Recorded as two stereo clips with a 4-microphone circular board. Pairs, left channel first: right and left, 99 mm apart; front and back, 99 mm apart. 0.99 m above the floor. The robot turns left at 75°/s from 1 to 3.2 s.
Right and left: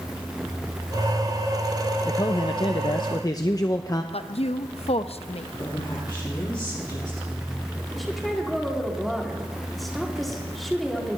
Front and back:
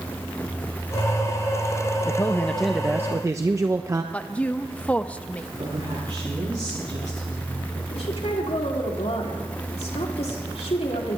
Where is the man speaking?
45° right, 0.7 m; by 4.0 s 130° right, 0.7 m.